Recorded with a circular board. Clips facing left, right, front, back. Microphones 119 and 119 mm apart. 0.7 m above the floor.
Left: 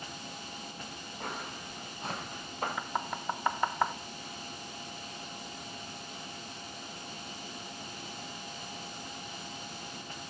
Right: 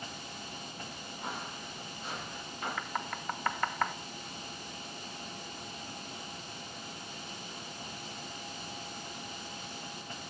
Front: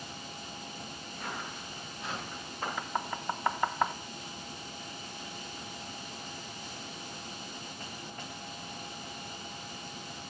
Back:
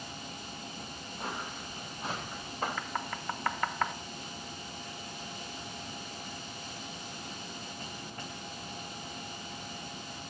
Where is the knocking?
45° left, 0.5 m.